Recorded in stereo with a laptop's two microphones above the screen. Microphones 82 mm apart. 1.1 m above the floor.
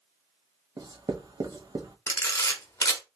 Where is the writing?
55° right (ahead or behind), 1.2 m.